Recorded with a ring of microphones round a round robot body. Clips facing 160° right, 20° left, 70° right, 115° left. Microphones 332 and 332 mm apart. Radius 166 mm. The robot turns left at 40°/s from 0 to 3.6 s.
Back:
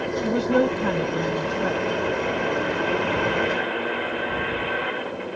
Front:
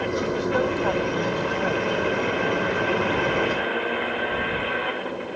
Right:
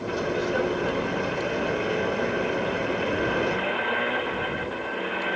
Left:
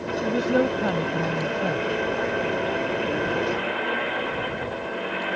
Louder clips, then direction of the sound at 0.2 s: Back 6 dB, left 5 dB; 165° left.